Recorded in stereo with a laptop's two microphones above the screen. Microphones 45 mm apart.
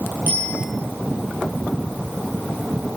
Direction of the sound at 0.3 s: 45° right (ahead or behind).